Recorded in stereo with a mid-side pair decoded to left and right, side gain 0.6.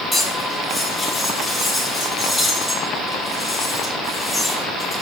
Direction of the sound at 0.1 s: 10° left.